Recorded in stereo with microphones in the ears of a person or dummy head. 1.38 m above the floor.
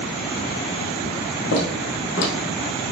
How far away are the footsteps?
About 3 m.